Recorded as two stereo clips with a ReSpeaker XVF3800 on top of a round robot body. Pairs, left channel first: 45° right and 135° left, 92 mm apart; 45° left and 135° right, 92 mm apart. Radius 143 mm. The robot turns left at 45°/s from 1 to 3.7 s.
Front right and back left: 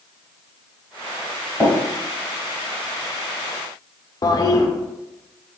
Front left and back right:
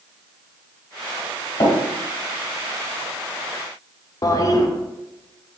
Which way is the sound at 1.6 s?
25° left.